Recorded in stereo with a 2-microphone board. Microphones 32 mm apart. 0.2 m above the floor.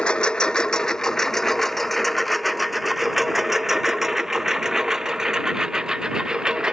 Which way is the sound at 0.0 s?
30° left (ahead or behind).